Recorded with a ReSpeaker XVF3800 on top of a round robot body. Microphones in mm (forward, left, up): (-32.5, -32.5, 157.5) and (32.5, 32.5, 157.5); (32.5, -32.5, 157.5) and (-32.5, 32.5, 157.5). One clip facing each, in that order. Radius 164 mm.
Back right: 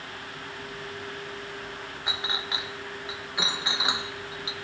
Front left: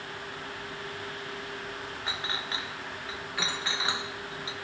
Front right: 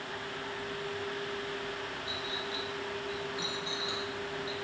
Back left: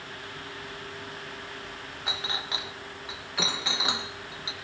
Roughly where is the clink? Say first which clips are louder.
Back right 3 dB, back left 2 dB; behind left.